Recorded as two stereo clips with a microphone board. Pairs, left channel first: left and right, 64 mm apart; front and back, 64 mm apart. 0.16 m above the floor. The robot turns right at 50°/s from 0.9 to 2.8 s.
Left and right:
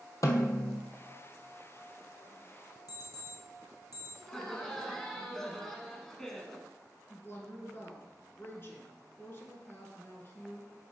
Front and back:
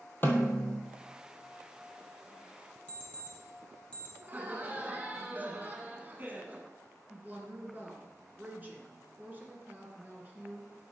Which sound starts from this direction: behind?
Laughter, at 4.2 s.